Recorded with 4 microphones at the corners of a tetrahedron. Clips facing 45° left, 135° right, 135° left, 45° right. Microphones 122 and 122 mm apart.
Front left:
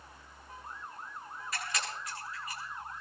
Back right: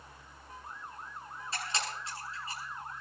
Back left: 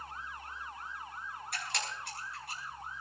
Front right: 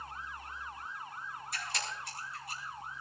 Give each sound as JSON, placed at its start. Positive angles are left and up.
{"t": 1.5, "sound": "a camera shutter", "azimuth_deg": 160, "distance_m": 7.5}